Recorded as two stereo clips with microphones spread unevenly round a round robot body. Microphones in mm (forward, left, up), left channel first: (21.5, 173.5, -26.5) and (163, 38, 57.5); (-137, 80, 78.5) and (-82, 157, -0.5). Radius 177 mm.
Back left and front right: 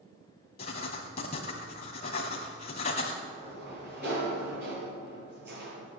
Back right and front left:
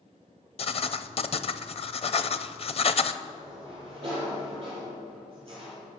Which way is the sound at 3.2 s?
10° right.